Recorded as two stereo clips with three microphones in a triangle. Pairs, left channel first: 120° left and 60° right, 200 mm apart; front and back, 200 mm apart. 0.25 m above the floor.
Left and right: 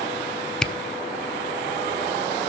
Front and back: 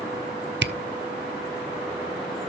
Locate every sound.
0.6 s a camera shutter: 155° right, 0.6 m